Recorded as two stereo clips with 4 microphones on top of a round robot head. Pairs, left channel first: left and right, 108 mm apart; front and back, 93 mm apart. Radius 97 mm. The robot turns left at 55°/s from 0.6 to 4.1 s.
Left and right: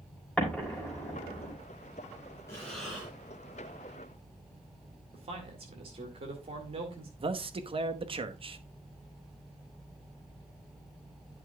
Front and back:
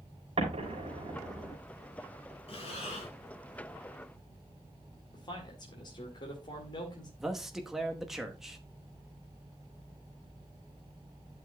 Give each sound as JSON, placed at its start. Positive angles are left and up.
{"t": 0.4, "sound": "an explosion", "azimuth_deg": 170, "distance_m": 4.0}
{"t": 2.5, "sound": "breathing", "azimuth_deg": 20, "distance_m": 3.0}
{"t": 5.1, "sound": "a man speaking", "azimuth_deg": -50, "distance_m": 2.0}
{"t": 7.2, "sound": "a man speaking", "azimuth_deg": -95, "distance_m": 1.1}